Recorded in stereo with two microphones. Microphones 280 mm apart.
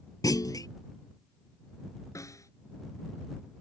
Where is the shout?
I don't hear a shout.